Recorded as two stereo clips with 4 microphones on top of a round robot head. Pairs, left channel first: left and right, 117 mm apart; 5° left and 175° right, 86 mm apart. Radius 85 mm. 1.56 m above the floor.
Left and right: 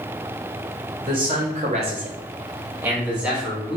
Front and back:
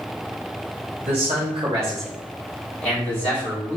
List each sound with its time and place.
1.0 s a man speaking: 150° right, 0.9 m; by 3.8 s 5° right, 1.5 m